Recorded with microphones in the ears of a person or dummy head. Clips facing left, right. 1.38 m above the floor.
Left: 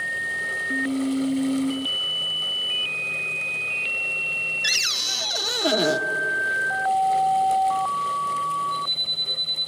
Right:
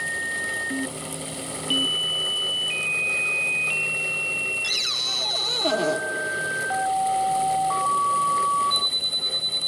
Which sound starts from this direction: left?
A cupboard door, at 4.6 s.